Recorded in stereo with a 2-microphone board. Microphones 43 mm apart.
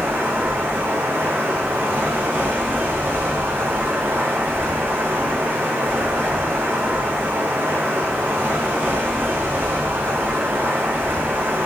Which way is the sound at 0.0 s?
75° right (ahead or behind).